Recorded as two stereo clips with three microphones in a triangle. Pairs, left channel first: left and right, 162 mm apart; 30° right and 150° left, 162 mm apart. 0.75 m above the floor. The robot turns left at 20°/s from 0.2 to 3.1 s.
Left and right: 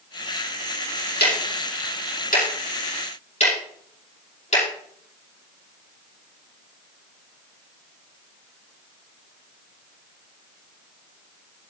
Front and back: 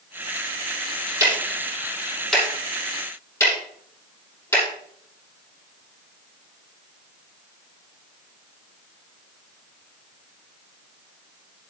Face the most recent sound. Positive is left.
turn(degrees=40)